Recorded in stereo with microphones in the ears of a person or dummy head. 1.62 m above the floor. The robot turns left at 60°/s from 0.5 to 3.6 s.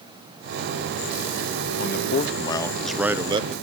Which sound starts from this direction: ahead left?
A man speaking, at 1.8 s.